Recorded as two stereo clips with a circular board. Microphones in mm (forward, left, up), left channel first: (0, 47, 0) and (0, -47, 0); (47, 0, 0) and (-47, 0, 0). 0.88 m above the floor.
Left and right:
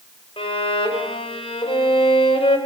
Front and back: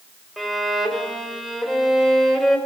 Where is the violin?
90° left, 4.5 m.